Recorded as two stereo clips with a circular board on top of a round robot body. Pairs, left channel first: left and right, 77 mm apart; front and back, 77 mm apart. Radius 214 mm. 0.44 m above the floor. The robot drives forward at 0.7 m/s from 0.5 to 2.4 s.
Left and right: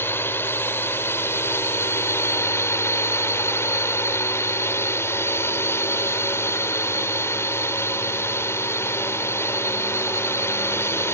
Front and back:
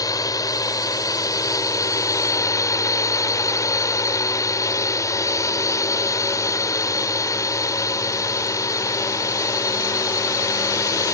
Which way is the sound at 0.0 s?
35° left.